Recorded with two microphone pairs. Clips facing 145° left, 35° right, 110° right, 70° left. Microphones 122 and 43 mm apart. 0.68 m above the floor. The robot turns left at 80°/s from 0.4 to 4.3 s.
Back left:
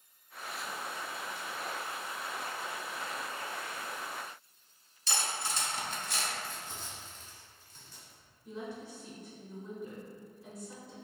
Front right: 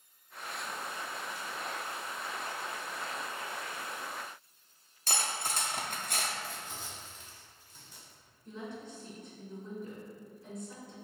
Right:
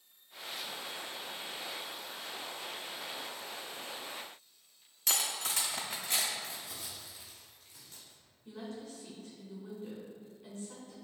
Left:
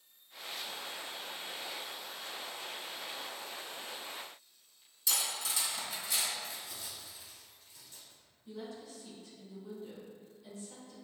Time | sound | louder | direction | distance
5.1 | cutlery clinking | front right 1 dB, right 2 dB | 70° right | 0.6 m
6.4 | crumpling | even, right 1 dB | 110° right | 1.9 m
8.4 | a woman speaking | back left 1 dB, right 1 dB | 135° right | 2.0 m